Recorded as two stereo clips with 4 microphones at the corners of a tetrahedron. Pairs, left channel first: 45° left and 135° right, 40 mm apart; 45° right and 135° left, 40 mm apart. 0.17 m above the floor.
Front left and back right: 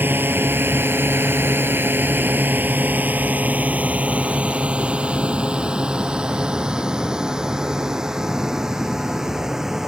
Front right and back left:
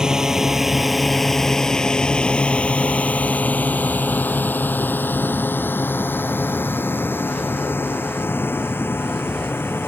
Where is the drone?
155° right; by 9.9 s 55° right.